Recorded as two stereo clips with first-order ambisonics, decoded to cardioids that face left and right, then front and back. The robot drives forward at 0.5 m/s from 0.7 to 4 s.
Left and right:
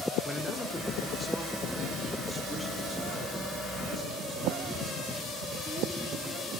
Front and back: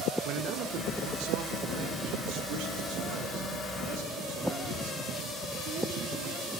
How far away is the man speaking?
About 0.9 m.